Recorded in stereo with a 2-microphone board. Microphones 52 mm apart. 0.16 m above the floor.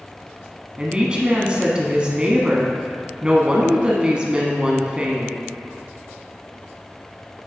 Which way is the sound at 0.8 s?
20° right (ahead or behind).